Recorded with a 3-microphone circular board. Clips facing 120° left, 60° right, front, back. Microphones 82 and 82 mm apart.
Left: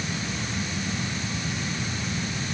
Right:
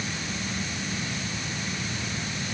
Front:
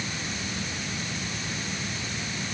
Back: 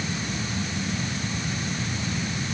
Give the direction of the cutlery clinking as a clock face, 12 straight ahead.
I don't hear cutlery clinking.